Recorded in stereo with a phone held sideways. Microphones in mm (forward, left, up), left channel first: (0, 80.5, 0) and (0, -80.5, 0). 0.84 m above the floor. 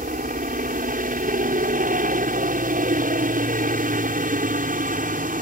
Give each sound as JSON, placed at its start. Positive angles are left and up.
{"t": 0.0, "sound": "a helicopter", "side_deg": -60}